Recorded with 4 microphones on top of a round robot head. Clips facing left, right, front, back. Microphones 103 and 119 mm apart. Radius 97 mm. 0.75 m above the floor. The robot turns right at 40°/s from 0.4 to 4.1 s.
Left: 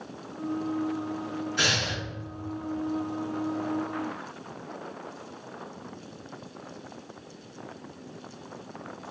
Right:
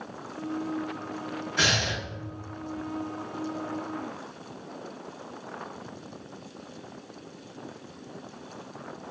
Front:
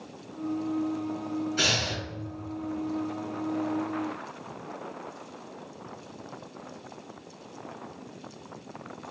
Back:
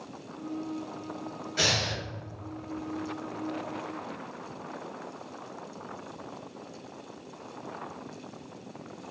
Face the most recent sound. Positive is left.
turn(degrees=-45)